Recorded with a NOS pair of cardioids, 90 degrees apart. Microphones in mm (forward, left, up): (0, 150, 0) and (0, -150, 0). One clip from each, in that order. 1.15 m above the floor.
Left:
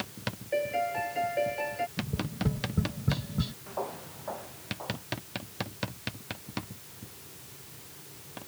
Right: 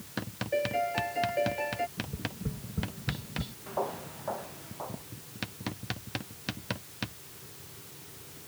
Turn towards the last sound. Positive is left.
turn(degrees=-20)